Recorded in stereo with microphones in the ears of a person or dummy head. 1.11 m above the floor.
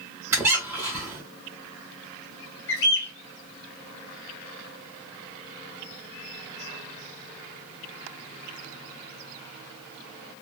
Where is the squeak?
15° right (ahead or behind), 1.7 m.